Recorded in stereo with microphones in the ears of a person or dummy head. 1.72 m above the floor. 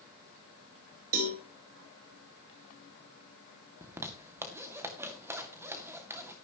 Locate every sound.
1.1 s a cowbell: 55° right (ahead or behind), 2.5 m
3.8 s a zipper: 15° right (ahead or behind), 2 m